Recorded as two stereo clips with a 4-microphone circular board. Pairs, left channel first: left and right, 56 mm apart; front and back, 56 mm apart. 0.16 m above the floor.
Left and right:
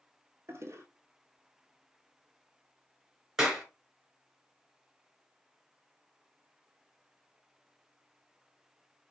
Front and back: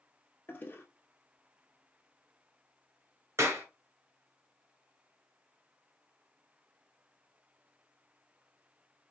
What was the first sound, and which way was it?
A toilet flushing, 55° right.